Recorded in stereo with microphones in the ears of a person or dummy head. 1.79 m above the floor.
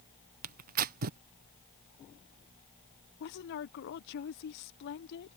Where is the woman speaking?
65° left (ahead or behind).